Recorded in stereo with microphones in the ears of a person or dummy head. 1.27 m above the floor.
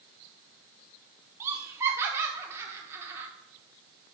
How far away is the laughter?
About 0.6 m.